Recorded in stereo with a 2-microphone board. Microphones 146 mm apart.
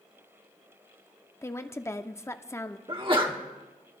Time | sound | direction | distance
1.4 | a woman speaking | 20° left (ahead or behind) | 0.8 m
2.9 | a sneeze | 35° right (ahead or behind) | 1.4 m